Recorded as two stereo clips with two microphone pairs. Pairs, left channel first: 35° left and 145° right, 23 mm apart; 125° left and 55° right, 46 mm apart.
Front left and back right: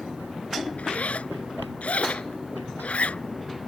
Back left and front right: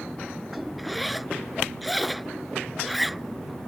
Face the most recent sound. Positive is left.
turn(degrees=35)